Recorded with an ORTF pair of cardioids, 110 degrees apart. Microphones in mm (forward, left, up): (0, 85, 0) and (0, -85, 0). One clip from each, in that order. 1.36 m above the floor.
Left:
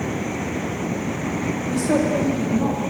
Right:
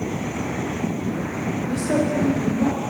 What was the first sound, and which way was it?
A woman speaking, 10° left.